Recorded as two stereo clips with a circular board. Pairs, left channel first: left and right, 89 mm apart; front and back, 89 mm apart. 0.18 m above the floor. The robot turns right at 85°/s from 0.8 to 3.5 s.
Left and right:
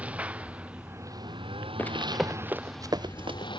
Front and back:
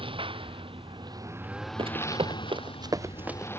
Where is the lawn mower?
165° right; by 3.6 s 65° left.